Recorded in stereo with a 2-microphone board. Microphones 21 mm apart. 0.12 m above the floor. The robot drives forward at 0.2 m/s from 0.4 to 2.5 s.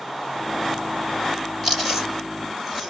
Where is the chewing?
15° right (ahead or behind), 2.5 m; by 2.9 s 10° right (ahead or behind), 2.5 m.